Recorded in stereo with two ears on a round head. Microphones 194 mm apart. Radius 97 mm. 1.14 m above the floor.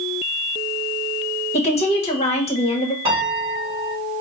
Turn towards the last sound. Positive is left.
turn(degrees=-25)  # may be behind; listen again after turning